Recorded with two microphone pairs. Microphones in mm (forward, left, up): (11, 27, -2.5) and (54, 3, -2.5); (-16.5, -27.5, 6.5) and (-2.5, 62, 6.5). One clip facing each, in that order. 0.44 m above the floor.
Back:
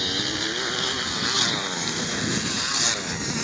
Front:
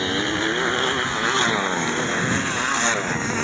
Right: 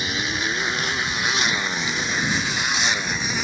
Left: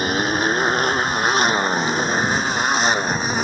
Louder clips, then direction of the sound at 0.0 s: Front 6 dB, left 7 dB; 35° left.